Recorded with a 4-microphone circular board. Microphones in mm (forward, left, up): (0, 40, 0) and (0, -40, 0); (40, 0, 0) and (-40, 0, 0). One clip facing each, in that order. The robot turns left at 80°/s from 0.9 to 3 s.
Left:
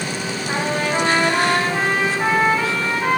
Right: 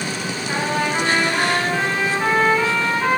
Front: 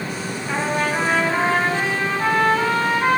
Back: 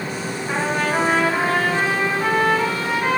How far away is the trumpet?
About 4.5 m.